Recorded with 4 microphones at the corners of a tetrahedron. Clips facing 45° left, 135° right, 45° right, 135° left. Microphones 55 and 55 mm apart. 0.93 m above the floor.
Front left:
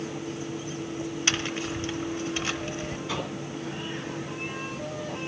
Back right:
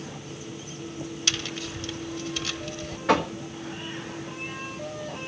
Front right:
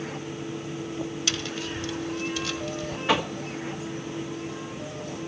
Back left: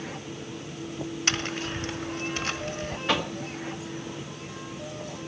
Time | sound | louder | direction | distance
1.3 | tapping | front left 3 dB, back left 1 dB | 100° left | 1.0 m
3.1 | knocking | back right 13 dB, front right 3 dB | 125° right | 1.6 m